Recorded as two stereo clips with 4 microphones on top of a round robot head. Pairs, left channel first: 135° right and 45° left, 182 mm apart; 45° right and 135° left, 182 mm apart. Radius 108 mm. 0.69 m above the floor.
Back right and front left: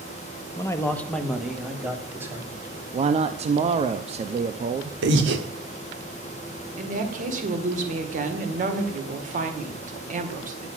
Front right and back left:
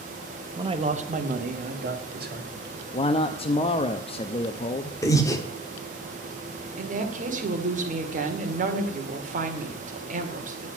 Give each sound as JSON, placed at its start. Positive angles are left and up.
{"t": 0.6, "sound": "a man speaking", "azimuth_deg": 175, "distance_m": 1.1}
{"t": 2.9, "sound": "a man speaking", "azimuth_deg": 5, "distance_m": 0.7}
{"t": 5.0, "sound": "breathing", "azimuth_deg": 30, "distance_m": 1.4}
{"t": 6.8, "sound": "a woman speaking", "azimuth_deg": 90, "distance_m": 1.9}